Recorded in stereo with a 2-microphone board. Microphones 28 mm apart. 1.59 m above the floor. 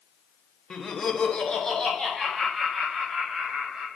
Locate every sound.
0.7 s laughter: 30° left (ahead or behind), 0.6 m; by 3.9 s 15° left (ahead or behind), 1.9 m